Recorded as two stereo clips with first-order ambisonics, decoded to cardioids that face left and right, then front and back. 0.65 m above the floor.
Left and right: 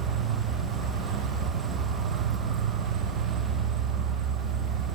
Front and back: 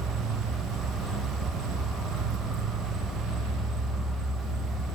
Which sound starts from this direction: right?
An insect, at 0.0 s.